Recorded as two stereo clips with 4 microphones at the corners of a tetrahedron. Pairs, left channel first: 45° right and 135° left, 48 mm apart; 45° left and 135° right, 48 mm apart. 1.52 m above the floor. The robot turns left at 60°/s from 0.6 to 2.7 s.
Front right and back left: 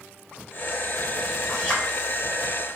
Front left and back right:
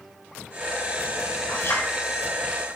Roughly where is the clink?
Ahead left.